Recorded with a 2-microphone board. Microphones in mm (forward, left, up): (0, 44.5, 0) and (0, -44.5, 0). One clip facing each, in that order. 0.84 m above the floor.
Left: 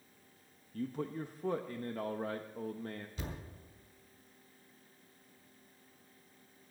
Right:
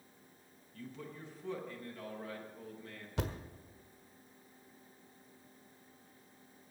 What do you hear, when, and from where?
0.7 s a man speaking: 45° left (ahead or behind), 0.8 m
3.2 s a thud: 70° right (ahead or behind), 1.4 m